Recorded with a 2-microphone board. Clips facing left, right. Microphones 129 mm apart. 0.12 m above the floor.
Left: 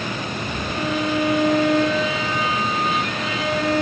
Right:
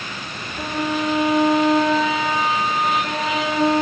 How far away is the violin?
About 5 m.